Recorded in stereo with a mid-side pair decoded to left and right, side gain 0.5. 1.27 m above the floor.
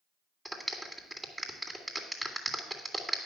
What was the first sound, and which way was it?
A clap, 10° right.